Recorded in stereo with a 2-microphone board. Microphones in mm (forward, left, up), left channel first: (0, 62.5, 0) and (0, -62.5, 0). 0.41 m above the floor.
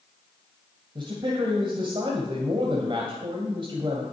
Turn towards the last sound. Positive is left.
turn(degrees=-45)  # may be behind; listen again after turning